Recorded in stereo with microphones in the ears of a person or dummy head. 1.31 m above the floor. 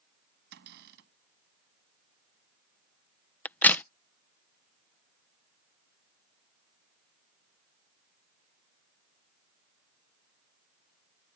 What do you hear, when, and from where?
0.5 s a cupboard door: 60° right (ahead or behind)
3.5 s a crack: 5° left (ahead or behind)